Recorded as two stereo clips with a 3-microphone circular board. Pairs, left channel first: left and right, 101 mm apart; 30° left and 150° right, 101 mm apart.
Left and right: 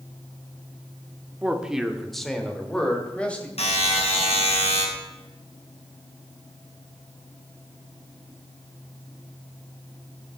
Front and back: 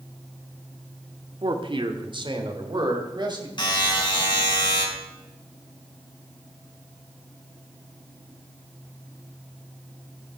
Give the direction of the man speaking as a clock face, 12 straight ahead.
5 o'clock.